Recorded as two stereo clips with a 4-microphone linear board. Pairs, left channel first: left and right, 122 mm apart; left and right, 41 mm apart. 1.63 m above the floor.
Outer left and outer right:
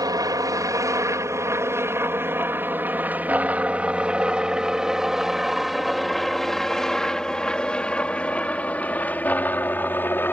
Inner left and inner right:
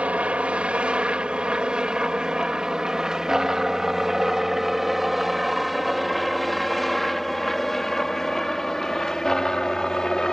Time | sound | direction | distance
0.0 | a helicopter | 30° right (ahead or behind) | ?